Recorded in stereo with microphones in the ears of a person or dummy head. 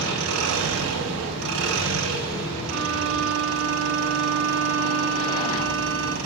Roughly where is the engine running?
Right.